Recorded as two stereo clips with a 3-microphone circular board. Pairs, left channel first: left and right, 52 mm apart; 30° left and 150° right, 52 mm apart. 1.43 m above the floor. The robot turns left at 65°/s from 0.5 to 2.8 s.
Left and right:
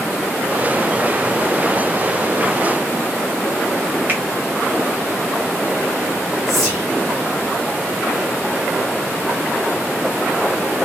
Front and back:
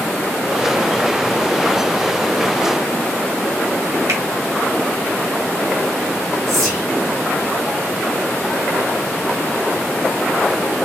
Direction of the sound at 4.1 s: 145° right.